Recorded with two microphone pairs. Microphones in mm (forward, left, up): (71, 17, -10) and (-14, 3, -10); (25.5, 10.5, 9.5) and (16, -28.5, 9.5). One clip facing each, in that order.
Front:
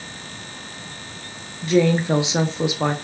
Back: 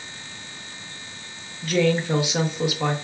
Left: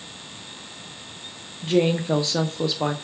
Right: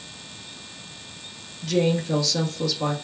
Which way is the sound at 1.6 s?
50° left.